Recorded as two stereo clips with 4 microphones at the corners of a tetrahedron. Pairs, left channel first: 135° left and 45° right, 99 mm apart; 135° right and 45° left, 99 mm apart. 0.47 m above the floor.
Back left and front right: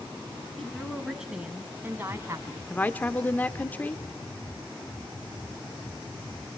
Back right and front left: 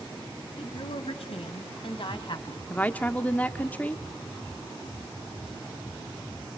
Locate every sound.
0.6 s a woman speaking: 140° right, 3.5 m; by 2.6 s 100° right, 3.5 m
2.7 s a woman speaking: 175° left, 0.9 m